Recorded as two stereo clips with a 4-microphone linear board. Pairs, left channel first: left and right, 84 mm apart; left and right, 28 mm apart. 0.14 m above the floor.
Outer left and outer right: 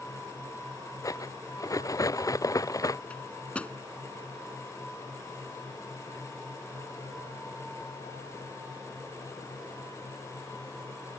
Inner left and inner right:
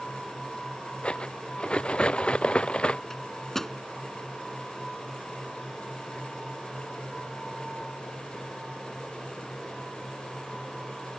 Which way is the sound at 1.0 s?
40° left (ahead or behind).